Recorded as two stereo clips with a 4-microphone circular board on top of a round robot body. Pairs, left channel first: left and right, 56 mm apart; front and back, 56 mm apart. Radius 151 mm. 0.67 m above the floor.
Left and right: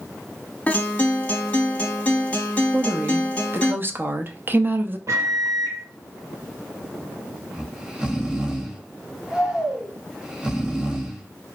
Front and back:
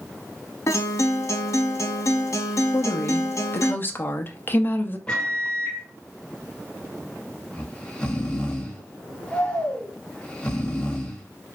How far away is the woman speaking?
About 0.7 m.